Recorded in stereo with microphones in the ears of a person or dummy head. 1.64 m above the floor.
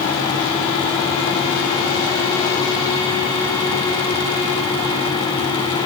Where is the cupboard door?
No cupboard door in this recording.